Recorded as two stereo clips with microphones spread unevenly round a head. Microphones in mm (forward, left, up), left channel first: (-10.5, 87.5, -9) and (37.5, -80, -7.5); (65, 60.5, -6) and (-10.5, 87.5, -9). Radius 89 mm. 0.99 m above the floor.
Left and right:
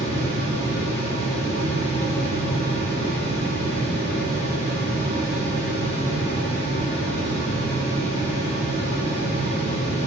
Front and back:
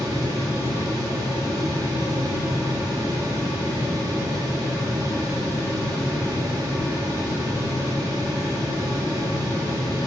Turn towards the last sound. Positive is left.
turn(degrees=130)